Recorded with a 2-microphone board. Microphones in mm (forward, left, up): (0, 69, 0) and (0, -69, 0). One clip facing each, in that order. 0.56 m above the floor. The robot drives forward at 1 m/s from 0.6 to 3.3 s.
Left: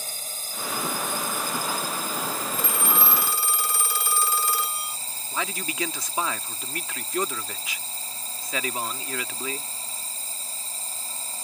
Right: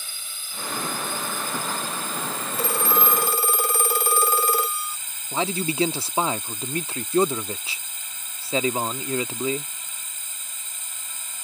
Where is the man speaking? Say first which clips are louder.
Right 7 dB; 30° right (ahead or behind).